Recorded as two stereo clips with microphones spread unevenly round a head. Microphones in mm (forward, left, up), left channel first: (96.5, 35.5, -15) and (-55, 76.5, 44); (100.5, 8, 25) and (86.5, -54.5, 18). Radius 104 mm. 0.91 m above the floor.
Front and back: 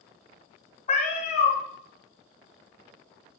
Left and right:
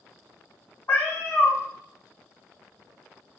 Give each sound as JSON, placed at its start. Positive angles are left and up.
{"t": 0.9, "sound": "a cat meowing", "azimuth_deg": 40, "distance_m": 1.5}